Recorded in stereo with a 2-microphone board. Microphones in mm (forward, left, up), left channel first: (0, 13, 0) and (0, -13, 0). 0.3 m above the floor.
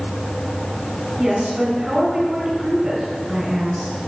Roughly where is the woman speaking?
Centre.